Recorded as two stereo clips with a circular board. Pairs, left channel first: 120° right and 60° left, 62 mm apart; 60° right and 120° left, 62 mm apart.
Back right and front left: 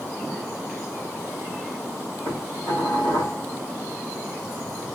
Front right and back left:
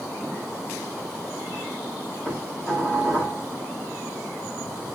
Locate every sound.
2.2 s dishes clattering: 135° right, 4 m